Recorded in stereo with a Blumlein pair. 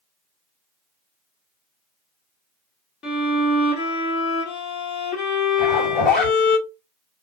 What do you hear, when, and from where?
3.0 s a violin: 30° left, 1.6 m
5.6 s a zipper: 30° left, 2 m